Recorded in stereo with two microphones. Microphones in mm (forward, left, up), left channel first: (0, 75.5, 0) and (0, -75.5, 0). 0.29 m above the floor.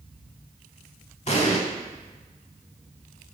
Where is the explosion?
45° left (ahead or behind), 0.6 m.